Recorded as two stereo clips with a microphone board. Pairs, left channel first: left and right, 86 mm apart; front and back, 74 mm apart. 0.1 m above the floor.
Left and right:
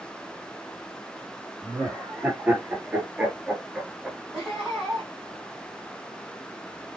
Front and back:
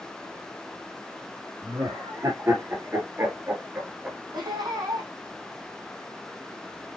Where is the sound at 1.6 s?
150° right, 2.5 m; by 4.2 s 155° right, 1.6 m.